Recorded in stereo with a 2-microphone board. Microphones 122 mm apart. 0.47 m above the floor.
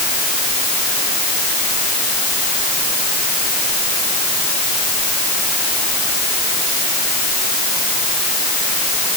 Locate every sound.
Only background noise.